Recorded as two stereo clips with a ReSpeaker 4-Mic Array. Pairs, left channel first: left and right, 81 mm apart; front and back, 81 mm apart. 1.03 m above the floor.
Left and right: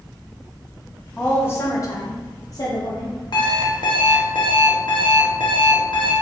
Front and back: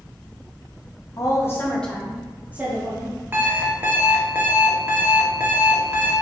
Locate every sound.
1.2 s a woman speaking: 25° left, 0.8 m; by 3.2 s 130° left, 1.3 m
3.3 s an alarm clock: 115° left, 0.7 m